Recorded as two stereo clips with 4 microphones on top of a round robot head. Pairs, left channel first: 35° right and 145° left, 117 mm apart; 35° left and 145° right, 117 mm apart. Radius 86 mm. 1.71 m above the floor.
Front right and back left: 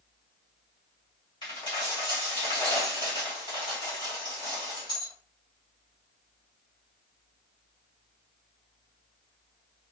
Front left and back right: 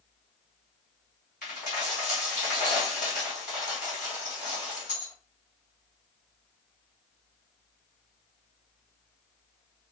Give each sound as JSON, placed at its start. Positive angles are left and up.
{"t": 1.4, "sound": "a dropped coin", "azimuth_deg": 15, "distance_m": 2.5}